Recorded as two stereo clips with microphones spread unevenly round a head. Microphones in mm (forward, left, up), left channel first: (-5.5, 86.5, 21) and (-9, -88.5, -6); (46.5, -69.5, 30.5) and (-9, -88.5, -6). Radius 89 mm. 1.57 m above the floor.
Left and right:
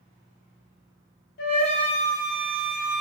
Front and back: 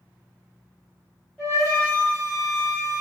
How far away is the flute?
About 0.7 m.